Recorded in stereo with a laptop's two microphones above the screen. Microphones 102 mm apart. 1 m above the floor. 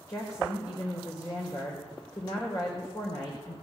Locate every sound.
0.1 s a woman speaking: 30° left (ahead or behind), 4 m